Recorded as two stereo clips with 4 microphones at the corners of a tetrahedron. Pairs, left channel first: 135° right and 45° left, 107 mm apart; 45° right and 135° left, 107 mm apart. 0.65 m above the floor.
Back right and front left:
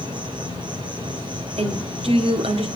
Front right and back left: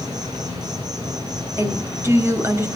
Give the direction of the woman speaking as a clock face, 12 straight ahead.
10 o'clock.